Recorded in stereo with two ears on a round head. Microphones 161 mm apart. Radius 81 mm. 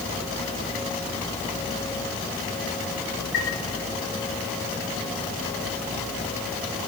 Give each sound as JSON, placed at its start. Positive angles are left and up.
{"t": 3.3, "sound": "a chime", "side_deg": 65, "distance_m": 4.0}